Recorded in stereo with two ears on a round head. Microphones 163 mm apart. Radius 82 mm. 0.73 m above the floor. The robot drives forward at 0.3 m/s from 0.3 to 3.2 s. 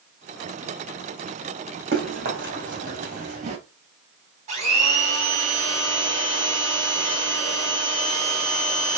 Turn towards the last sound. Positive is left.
turn(degrees=-40)  # may be behind; listen again after turning